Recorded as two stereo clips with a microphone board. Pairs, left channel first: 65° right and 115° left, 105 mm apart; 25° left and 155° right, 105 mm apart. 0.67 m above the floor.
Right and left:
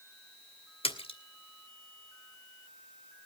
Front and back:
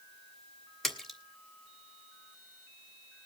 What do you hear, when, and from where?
0.8 s a splash: 70° right, 2.5 m